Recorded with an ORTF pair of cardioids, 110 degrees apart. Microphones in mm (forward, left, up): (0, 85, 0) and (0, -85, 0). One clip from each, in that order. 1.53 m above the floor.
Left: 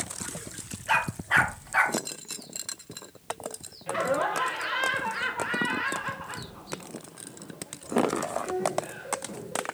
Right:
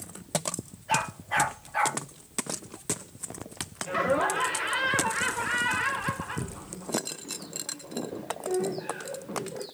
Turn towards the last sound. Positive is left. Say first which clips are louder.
# right 1 dB
turn(degrees=-5)